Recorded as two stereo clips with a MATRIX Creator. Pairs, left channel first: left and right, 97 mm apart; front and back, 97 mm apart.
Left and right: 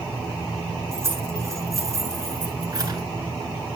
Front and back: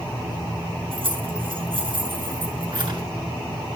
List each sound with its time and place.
0.9 s keys jangling: 155° right, 7 m; by 3.0 s 140° right, 7.5 m